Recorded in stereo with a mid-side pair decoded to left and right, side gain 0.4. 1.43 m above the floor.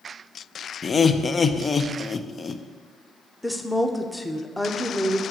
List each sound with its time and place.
0.8 s laughter: 35° left, 0.7 m
3.4 s a woman speaking: 5° left, 0.9 m